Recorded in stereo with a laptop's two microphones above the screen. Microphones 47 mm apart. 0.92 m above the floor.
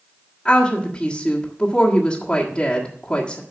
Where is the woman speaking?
25° left (ahead or behind), 1.7 m.